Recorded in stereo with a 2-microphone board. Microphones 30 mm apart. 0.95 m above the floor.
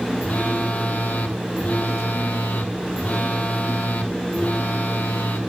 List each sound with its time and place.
0.2 s a phone buzzing: 65° left (ahead or behind), 1.8 m